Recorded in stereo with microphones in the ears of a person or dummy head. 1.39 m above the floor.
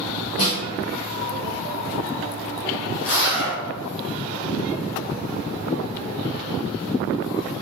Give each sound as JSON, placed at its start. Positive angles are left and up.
{"t": 0.4, "sound": "a snare drum", "side_deg": 50, "distance_m": 1.8}
{"t": 3.0, "sound": "a zipper", "side_deg": 60, "distance_m": 0.8}